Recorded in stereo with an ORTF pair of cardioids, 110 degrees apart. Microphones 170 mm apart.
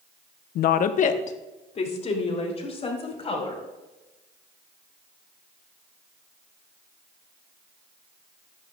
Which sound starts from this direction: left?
A woman speaking, at 0.6 s.